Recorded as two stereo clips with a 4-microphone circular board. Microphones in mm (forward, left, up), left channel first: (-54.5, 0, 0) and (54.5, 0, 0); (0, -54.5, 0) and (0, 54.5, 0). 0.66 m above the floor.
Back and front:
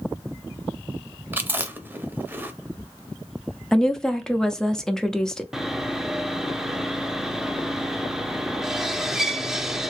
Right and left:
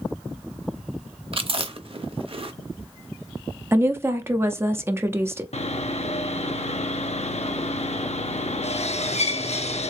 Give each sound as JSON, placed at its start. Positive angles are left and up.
{"t": 1.3, "sound": "chewing", "azimuth_deg": 70, "distance_m": 0.6}
{"t": 3.7, "sound": "a woman speaking", "azimuth_deg": 105, "distance_m": 0.5}
{"t": 5.5, "sound": "sawing", "azimuth_deg": -85, "distance_m": 0.5}